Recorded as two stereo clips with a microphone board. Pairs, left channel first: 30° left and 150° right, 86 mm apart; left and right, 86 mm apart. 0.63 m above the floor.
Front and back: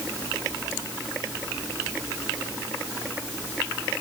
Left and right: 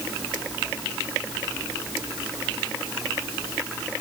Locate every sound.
Only background noise.